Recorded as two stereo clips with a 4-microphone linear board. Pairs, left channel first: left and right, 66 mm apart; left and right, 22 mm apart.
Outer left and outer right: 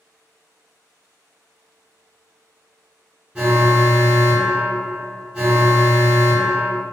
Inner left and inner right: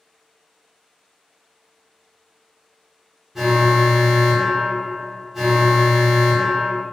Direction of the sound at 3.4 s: 15° right (ahead or behind).